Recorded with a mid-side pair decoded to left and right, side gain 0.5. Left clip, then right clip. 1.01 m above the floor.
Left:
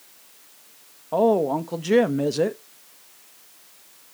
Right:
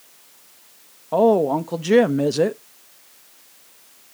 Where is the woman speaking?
15° right, 0.9 m.